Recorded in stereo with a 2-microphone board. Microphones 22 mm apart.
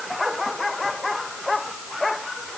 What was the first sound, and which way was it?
Only background noise.